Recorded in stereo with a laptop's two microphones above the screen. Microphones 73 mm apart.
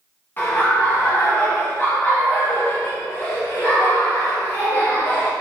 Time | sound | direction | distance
0.4 | laughter | 25° left (ahead or behind) | 0.6 m